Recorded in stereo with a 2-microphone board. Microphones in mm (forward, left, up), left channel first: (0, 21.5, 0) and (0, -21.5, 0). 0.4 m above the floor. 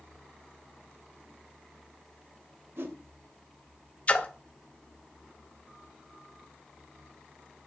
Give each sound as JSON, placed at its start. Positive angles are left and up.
{"t": 2.8, "sound": "a whoosh", "side_deg": -60, "distance_m": 0.5}
{"t": 4.1, "sound": "a splash", "side_deg": 30, "distance_m": 0.5}